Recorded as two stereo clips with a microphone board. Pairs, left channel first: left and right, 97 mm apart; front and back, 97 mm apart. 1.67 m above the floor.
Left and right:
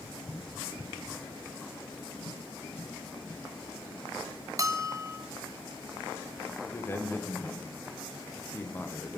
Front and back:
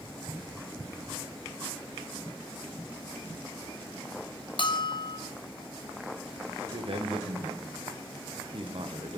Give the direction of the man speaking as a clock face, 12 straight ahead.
7 o'clock.